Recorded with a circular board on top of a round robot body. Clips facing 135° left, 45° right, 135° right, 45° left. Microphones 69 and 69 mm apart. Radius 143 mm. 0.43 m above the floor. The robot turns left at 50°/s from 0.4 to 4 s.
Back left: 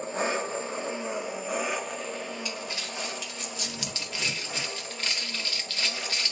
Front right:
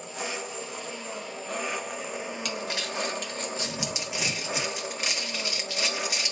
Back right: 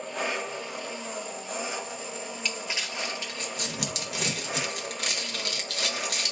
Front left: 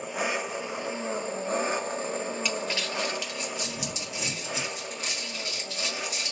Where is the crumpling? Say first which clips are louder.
Front right 3 dB, front left 3 dB; 40° right, 1.3 m; by 6.3 s 120° right, 1.3 m.